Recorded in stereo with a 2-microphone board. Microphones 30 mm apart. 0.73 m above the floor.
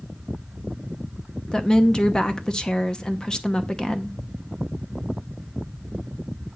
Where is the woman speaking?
25° left (ahead or behind), 0.8 m.